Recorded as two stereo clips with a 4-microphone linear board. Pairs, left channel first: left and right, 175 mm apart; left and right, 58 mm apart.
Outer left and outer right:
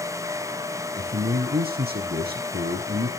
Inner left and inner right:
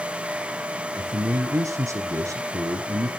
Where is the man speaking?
60° right (ahead or behind), 3 m.